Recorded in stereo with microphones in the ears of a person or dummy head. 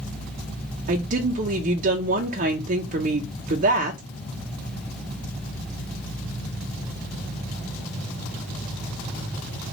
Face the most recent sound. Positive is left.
turn(degrees=-50)  # may be behind; listen again after turning